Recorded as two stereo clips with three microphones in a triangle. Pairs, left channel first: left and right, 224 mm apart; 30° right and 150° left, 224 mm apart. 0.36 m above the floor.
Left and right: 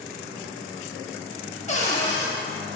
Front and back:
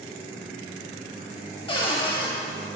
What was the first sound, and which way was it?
A cupboard door, 30° left.